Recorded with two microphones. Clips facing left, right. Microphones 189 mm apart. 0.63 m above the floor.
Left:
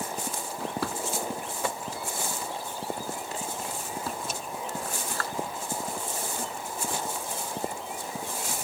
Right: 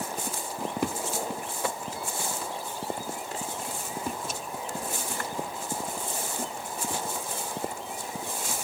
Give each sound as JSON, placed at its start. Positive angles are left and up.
{"t": 0.6, "sound": "a drawer", "side_deg": -20}